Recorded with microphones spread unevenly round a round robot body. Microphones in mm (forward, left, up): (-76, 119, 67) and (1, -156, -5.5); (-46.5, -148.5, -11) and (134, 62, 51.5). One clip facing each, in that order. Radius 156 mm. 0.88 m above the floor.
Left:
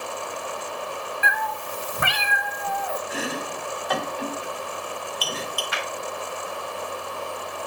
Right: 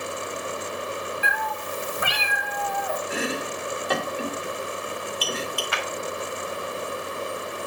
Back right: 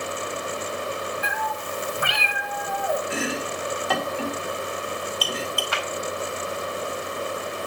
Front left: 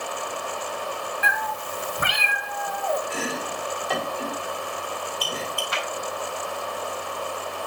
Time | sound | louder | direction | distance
1.2 | a cat meowing | even, back right 1 dB | 75° left | 0.9 m
3.1 | chopping | right 2 dB, back right 2 dB | 130° right | 2 m
5.7 | a clap | right 1 dB, back right 1 dB | 105° right | 3.5 m